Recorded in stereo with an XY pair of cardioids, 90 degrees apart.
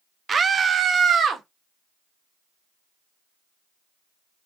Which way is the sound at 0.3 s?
40° right.